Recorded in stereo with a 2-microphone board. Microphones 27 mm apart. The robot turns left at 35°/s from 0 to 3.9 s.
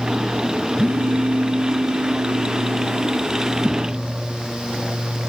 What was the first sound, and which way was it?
A phone buzzing, 90° right.